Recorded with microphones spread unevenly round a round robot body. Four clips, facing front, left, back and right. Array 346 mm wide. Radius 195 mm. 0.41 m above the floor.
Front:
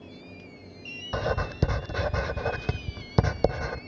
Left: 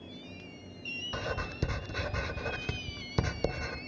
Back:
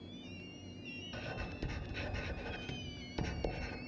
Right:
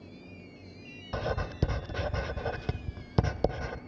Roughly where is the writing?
Ahead.